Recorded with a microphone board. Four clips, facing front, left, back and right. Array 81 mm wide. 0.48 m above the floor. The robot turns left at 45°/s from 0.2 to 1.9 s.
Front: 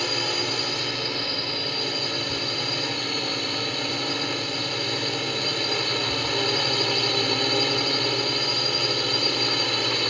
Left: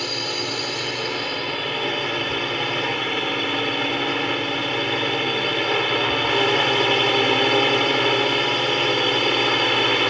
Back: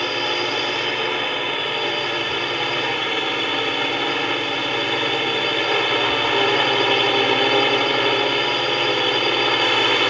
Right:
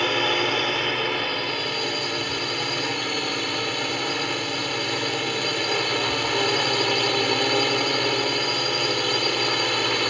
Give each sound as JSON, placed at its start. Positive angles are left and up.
{"t": 0.0, "sound": "a drone", "azimuth_deg": -125}